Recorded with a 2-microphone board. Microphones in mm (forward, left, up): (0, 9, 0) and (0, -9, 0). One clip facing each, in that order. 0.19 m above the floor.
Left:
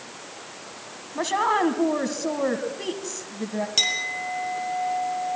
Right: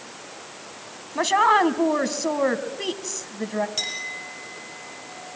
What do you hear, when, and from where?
1.1 s a woman speaking: 25° right (ahead or behind), 1.4 m
3.8 s a clink: 30° left (ahead or behind), 4 m